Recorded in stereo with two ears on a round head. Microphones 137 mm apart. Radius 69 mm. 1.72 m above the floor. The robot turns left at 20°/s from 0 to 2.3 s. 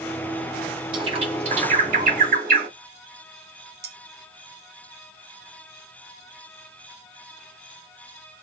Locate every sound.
0.9 s a bird: 35° right (ahead or behind), 1.7 m; by 2.7 s 60° right (ahead or behind), 1.7 m
3.8 s cutlery clinking: 45° right (ahead or behind), 1.4 m